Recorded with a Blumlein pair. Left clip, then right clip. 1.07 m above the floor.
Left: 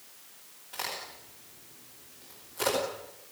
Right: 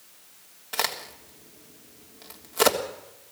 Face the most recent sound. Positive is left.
turn(degrees=-60)